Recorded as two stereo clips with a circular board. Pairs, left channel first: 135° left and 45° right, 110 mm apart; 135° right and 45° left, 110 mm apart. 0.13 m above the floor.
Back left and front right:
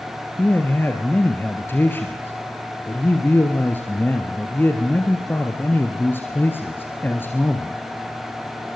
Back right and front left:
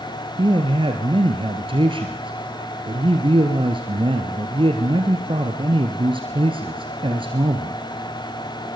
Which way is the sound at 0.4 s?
70° left.